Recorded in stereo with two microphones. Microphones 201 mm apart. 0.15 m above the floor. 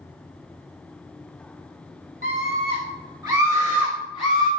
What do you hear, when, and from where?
2.2 s a scream: 35° right (ahead or behind), 1.8 m; by 4.5 s 5° left (ahead or behind), 2.0 m